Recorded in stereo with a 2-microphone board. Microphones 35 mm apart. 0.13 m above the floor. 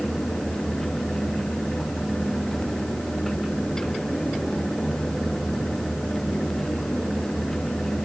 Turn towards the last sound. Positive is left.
No sound to turn to.